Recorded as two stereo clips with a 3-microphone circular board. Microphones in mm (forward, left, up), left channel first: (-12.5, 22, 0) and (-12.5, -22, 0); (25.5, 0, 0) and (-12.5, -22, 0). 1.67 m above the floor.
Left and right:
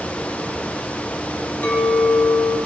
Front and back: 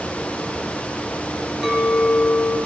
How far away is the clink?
About 1.6 m.